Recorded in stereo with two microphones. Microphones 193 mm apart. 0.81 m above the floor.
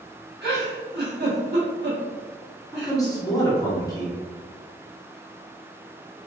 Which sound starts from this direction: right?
A giggle, at 0.4 s.